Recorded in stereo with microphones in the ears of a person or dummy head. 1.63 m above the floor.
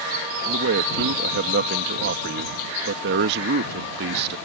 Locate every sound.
0.5 s a man speaking: 65° right (ahead or behind)